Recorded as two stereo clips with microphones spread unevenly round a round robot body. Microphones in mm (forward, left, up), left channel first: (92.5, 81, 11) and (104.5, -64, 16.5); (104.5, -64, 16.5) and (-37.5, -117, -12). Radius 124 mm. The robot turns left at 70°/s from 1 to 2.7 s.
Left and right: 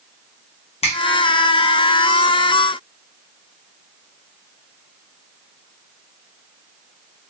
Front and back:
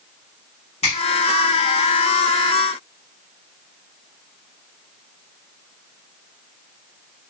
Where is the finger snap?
80° left, 1.0 m.